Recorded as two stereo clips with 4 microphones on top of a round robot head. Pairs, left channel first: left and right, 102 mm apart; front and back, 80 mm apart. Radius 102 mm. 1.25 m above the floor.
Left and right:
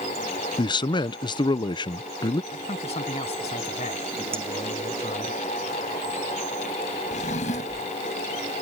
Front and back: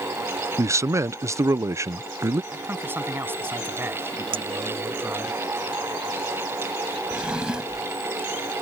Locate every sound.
0.6 s a man speaking: 125° left
2.5 s a man speaking: 115° left
4.3 s a clink: 160° right
7.1 s a drawer: 100° left